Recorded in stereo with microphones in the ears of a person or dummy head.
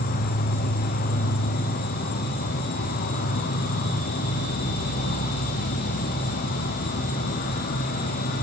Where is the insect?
45° left (ahead or behind), 1.1 m.